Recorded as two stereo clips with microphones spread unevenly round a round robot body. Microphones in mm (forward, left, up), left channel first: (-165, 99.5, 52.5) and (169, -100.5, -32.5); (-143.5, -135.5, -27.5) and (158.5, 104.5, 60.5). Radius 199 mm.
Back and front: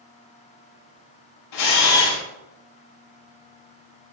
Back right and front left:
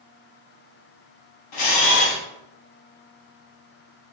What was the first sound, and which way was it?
A camera shutter, 175° right.